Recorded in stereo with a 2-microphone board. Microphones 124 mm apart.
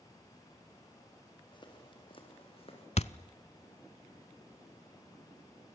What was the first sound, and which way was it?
Footsteps, 40° left (ahead or behind).